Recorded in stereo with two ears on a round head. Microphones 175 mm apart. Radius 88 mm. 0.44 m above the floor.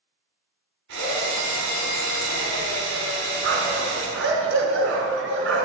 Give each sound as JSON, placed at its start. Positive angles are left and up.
{"t": 0.9, "sound": "a drill", "side_deg": -65, "distance_m": 5.0}
{"t": 3.4, "sound": "a dog barking", "side_deg": -75, "distance_m": 2.5}